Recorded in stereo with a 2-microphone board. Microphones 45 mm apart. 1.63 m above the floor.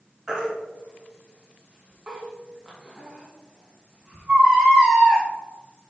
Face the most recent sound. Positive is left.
turn(degrees=-15)  # may be behind; listen again after turning